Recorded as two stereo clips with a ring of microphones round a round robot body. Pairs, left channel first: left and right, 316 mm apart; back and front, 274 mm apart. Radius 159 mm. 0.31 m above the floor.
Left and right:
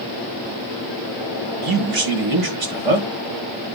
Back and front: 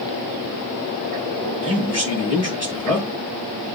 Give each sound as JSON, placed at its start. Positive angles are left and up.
{"t": 1.6, "sound": "a man speaking", "azimuth_deg": -105, "distance_m": 4.0}